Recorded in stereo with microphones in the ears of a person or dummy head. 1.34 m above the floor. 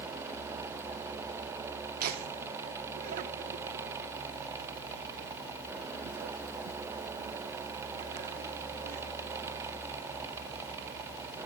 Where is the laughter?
50° right (ahead or behind), 0.8 m.